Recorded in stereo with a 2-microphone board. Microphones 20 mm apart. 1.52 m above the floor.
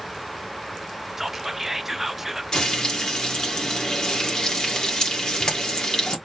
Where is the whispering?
20° right (ahead or behind), 0.6 m.